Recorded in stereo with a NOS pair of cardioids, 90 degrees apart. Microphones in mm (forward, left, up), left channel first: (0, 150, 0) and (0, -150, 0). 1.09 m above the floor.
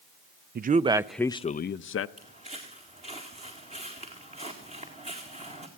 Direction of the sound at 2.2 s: 20° right.